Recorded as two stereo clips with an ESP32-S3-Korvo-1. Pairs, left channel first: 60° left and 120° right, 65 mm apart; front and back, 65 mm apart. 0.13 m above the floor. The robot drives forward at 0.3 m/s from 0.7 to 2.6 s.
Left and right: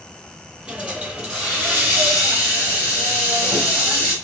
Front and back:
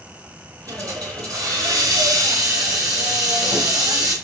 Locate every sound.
0.7 s a hiss: 165° left, 1.0 m; by 4.1 s 170° left, 1.6 m